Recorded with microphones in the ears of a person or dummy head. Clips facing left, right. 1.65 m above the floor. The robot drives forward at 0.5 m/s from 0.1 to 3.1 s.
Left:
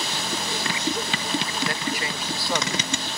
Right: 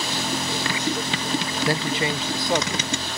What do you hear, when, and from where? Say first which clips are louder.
1.7 s a man speaking: right 5 dB; 30° right (ahead or behind); by 2.9 s 15° right (ahead or behind)